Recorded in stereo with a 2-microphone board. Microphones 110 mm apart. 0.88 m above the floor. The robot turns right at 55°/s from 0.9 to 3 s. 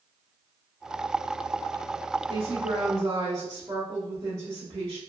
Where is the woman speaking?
90° right, 1.0 m; by 5.0 s 55° right, 1.0 m.